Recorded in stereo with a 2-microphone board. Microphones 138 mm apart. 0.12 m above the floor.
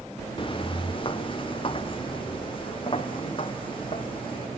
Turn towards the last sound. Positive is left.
turn(degrees=40)  # may be behind; listen again after turning